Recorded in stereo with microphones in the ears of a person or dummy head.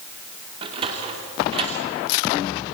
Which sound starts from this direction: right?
A sliding door, at 0.6 s.